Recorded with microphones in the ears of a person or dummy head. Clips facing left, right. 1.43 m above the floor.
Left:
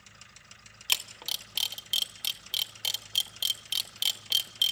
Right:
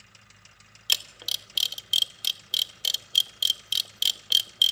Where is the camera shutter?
10° right (ahead or behind), 0.6 m.